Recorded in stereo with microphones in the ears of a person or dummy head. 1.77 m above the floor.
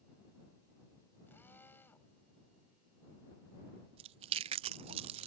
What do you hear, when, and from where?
1.3 s a drill: 10° left (ahead or behind)
4.0 s chewing: 35° right (ahead or behind)